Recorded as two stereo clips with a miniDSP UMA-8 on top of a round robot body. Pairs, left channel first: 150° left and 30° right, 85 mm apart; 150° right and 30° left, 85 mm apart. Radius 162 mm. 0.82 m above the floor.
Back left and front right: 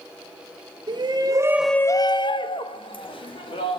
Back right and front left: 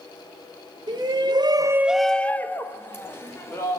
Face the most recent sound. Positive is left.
turn(degrees=150)